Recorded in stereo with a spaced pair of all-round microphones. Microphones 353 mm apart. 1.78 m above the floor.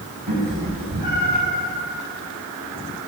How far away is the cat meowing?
About 6 m.